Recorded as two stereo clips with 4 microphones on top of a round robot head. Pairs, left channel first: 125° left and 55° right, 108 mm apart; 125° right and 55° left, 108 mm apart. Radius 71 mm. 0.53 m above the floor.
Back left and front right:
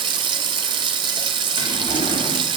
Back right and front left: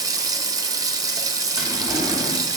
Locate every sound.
0.0 s running water: 5° right, 0.8 m
1.6 s a drawer: 130° left, 3 m